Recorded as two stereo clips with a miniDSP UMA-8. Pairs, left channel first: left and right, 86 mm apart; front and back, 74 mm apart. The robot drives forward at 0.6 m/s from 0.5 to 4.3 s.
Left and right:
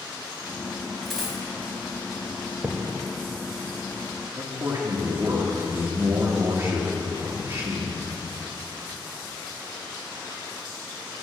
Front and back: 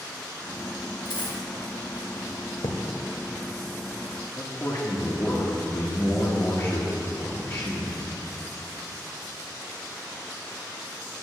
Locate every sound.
1.1 s a dropped coin: 5° left, 2.5 m
2.6 s a thud: 15° right, 0.9 m
4.3 s a man speaking: 55° right, 1.3 m